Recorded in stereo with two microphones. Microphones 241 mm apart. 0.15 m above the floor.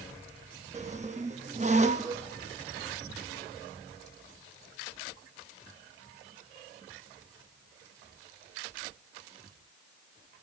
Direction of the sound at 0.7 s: 30° right (ahead or behind).